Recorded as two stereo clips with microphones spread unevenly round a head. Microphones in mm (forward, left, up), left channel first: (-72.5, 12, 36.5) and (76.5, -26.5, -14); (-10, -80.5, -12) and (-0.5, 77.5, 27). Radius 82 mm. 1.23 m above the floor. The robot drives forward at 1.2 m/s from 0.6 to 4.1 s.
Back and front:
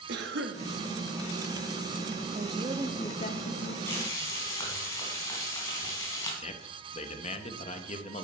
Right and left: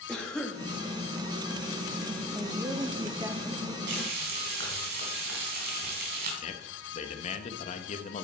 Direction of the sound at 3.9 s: 95° left.